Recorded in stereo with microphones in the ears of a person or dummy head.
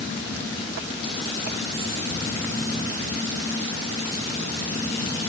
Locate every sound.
Only background noise.